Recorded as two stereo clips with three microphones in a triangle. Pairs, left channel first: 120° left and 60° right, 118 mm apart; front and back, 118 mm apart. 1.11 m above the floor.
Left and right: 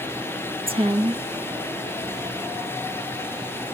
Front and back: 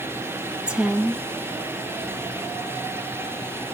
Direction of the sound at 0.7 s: 95° right.